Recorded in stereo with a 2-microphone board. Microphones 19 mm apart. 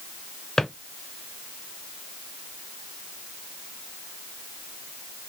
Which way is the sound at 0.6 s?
25° left (ahead or behind).